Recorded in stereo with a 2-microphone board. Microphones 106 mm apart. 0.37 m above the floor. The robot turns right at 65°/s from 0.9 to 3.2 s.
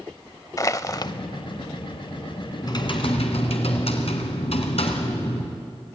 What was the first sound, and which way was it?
Crushing, 30° left (ahead or behind).